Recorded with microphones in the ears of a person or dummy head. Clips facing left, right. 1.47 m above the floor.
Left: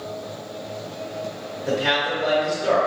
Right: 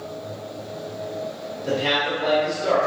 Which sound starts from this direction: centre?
A man speaking, at 1.6 s.